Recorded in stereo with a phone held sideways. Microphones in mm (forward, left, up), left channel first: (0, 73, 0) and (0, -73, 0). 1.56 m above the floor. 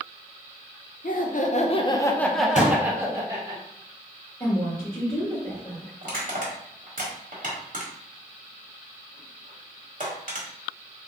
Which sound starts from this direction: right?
Crushing, at 6.0 s.